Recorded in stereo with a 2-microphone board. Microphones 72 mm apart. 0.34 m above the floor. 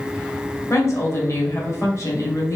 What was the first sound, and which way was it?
A woman speaking, 40° left (ahead or behind).